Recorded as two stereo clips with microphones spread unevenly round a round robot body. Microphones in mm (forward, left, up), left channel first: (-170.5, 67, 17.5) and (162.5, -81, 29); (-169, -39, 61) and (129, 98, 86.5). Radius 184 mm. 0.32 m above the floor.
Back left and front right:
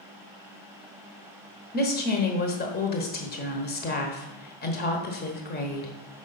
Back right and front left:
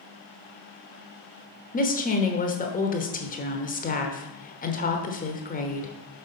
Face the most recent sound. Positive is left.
turn(degrees=-175)